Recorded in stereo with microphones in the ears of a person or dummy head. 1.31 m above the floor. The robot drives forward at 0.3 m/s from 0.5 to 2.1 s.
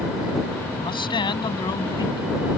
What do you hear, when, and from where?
0.7 s a man speaking: 25° left (ahead or behind)